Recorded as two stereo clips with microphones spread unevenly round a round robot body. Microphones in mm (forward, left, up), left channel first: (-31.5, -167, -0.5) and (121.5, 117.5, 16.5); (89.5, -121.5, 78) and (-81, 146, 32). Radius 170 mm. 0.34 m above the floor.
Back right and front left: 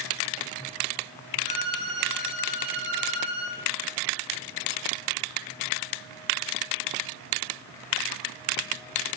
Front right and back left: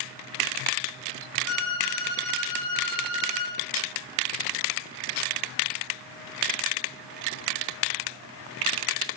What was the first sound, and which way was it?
A violin, 160° right.